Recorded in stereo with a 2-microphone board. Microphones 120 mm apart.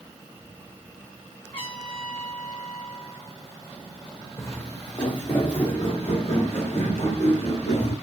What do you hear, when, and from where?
1.5 s a trumpet: 45° left (ahead or behind), 3 m
4.4 s footsteps: 20° left (ahead or behind), 1.8 m; by 7.9 s 65° left (ahead or behind), 4.5 m